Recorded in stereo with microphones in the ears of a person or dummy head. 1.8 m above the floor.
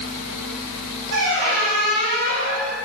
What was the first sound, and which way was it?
A squeak, 80° right.